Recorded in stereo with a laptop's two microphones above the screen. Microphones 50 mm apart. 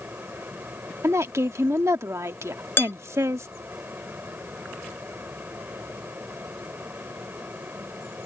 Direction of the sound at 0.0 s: 45° right (ahead or behind).